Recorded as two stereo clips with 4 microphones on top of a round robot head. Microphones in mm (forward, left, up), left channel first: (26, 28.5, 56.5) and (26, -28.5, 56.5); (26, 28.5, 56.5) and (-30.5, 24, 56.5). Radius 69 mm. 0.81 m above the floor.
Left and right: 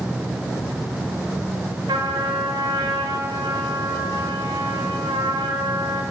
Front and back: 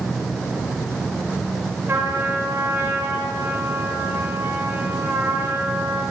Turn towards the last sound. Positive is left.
turn(degrees=-110)